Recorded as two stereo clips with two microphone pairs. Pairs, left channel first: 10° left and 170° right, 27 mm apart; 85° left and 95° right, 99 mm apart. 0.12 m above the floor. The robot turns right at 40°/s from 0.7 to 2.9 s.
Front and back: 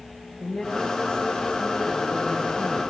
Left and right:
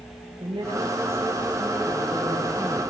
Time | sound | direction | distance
0.4 | a woman speaking | 50° right | 8.5 m